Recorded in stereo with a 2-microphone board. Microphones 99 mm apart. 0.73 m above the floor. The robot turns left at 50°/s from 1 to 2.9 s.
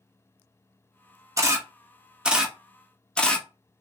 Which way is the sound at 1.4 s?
30° right (ahead or behind).